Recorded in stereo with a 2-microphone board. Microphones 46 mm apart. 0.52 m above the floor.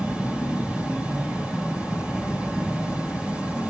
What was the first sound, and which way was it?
An insect, 25° right (ahead or behind).